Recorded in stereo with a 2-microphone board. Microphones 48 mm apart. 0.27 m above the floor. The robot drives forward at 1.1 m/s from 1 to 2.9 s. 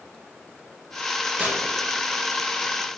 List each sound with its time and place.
1.4 s tearing paper: 25° right (ahead or behind), 1.9 m; by 1.6 s 30° right (ahead or behind), 1.7 m